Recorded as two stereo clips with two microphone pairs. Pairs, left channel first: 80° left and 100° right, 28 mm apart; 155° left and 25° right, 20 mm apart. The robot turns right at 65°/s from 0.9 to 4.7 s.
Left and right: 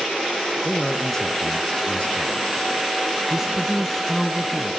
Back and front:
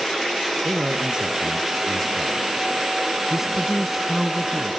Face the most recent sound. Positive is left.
turn(degrees=60)